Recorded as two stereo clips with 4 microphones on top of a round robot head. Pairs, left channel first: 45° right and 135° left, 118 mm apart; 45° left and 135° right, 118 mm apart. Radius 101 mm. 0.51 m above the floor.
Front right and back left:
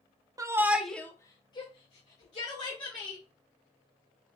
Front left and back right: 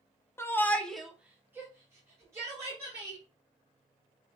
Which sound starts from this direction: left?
A shout, at 0.4 s.